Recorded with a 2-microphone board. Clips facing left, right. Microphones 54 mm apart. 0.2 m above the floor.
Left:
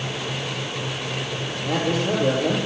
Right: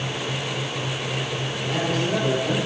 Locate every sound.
1.6 s a man speaking: 75° left (ahead or behind), 6 m